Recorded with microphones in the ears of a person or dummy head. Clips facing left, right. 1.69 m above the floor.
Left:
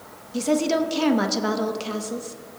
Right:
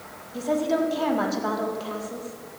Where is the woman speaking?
40° left (ahead or behind), 0.7 m.